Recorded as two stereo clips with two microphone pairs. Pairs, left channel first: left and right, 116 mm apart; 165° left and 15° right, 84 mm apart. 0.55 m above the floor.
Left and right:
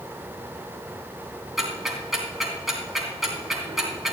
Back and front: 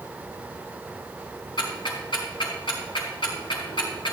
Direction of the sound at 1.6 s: Straight behind.